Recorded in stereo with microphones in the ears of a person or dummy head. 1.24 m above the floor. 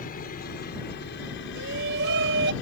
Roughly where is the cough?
No cough in this recording.